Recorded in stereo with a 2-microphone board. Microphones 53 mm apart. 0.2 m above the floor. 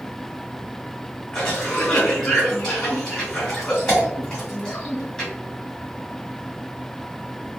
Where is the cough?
5° left (ahead or behind), 1.7 m.